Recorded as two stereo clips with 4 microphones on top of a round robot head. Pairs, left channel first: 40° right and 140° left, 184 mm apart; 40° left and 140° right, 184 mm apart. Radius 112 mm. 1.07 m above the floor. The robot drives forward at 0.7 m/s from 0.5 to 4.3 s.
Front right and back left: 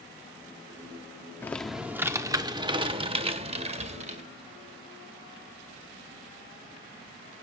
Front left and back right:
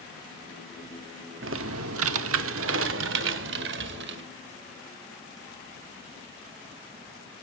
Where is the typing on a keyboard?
120° right, 0.8 m; by 4.2 s 165° right, 2.5 m.